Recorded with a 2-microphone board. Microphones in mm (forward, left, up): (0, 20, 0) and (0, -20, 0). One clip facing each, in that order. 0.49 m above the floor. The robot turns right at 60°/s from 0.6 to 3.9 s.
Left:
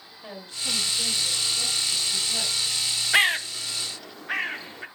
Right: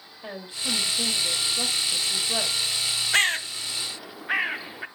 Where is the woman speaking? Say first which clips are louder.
Right 2 dB; 155° right, 2.0 m; by 2.7 s 30° right, 2.0 m.